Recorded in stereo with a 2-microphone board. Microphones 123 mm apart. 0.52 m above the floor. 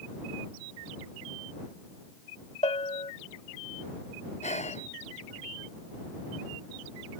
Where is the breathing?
65° left (ahead or behind).